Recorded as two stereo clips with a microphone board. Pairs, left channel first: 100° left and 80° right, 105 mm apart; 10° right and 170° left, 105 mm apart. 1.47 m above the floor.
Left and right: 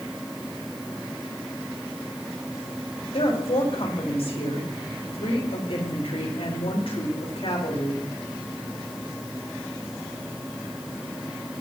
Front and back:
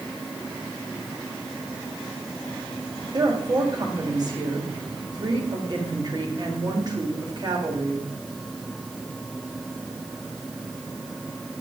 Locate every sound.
3.1 s a woman speaking: 120° left, 3.5 m